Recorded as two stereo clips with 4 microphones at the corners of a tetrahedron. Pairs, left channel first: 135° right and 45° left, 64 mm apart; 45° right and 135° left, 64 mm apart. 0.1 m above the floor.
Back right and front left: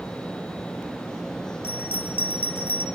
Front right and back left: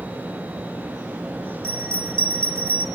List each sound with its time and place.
1.6 s a bell: straight behind, 2.5 m